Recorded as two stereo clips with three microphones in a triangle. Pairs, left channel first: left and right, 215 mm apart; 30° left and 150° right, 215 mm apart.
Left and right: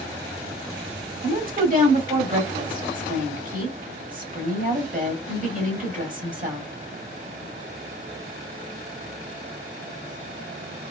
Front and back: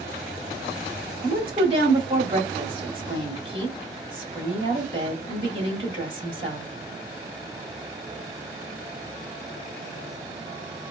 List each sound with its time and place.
1.2 s a woman speaking: 100° right, 1.3 m